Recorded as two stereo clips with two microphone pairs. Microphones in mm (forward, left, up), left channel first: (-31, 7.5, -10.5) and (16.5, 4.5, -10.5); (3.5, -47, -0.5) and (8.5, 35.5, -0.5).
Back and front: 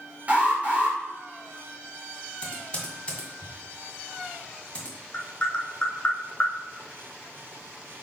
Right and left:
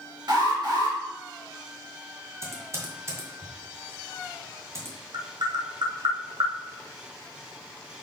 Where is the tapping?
110° left, 1.3 m.